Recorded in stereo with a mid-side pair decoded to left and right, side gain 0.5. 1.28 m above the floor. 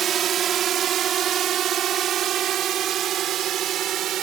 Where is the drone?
55° right; by 4.2 s 65° right.